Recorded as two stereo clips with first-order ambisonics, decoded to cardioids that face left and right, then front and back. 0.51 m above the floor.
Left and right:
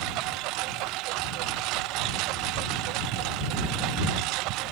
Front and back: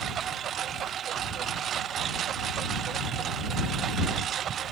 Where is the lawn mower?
120° right.